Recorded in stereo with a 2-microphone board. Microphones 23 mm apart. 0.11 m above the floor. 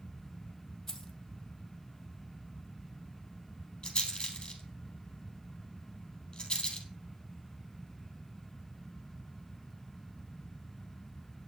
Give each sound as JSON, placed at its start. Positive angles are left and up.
{"t": 0.9, "sound": "keys jangling", "side_deg": 20, "distance_m": 2.5}
{"t": 3.8, "sound": "a rattle", "side_deg": 40, "distance_m": 3.5}